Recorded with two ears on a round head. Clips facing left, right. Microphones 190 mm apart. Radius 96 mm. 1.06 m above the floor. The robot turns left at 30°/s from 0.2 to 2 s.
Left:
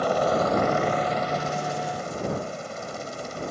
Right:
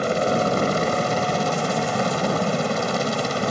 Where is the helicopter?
30° right; by 3.5 s 80° right.